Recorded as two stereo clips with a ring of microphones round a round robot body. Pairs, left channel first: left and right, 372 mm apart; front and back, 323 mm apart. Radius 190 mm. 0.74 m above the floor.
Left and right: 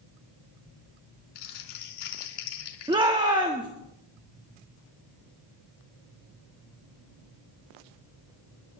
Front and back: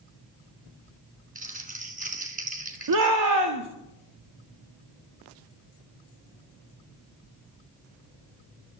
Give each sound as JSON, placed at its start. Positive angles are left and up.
{"t": 1.4, "sound": "crumpling", "azimuth_deg": 115, "distance_m": 3.0}
{"t": 2.9, "sound": "a shout", "azimuth_deg": -165, "distance_m": 1.6}